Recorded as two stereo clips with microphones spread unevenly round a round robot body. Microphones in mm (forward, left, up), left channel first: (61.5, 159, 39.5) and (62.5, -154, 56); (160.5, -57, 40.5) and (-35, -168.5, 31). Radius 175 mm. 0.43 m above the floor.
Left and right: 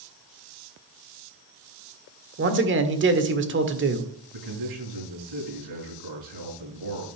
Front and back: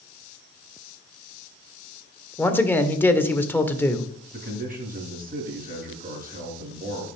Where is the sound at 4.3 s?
100° right, 6.5 m.